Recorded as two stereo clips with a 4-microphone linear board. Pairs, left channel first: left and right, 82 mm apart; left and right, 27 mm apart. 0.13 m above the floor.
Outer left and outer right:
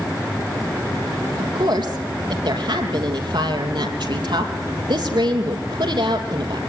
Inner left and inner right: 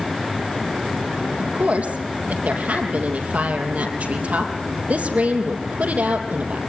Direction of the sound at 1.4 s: 70° right (ahead or behind).